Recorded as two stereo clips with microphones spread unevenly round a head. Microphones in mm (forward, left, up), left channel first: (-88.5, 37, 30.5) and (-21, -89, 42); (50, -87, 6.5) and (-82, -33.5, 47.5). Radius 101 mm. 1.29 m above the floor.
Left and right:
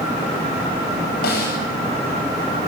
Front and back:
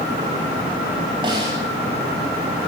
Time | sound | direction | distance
1.2 | a snare drum | 90° left | 9 m